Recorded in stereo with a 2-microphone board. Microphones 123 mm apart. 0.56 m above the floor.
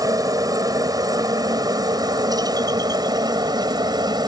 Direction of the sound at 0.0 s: 25° right (ahead or behind).